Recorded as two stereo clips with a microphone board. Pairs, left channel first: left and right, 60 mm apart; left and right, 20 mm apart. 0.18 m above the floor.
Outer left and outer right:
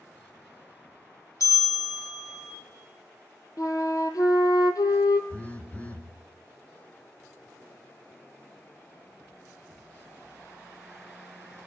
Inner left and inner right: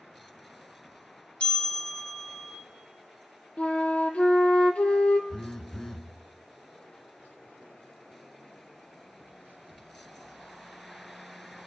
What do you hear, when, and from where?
1.4 s a bell: 65° left (ahead or behind), 6 m
3.6 s a flute: 85° left, 1.2 m
5.3 s a phone buzzing: 25° left (ahead or behind), 1.2 m